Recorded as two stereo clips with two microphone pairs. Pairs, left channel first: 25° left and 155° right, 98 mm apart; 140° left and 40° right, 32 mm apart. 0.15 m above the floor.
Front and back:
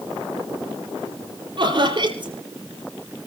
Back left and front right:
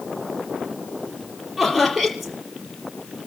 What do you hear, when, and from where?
1.6 s laughter: 125° right, 4.5 m